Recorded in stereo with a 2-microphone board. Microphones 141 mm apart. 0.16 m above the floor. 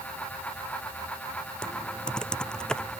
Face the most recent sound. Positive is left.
turn(degrees=5)  # may be behind; listen again after turning